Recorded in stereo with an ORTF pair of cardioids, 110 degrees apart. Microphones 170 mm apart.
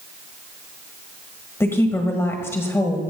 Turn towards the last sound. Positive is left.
turn(degrees=15)